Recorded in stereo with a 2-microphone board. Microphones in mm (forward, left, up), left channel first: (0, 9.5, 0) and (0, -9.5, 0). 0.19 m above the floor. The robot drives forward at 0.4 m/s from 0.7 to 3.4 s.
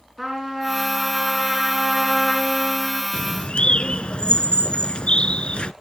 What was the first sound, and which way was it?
A trumpet, 15° right (ahead or behind).